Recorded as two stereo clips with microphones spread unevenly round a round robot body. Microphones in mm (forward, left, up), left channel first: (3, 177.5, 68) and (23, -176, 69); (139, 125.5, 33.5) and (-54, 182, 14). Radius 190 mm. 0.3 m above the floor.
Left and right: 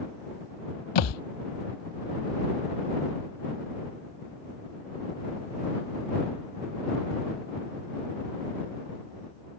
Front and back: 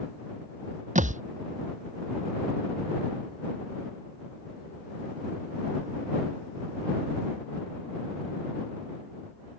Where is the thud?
110° left.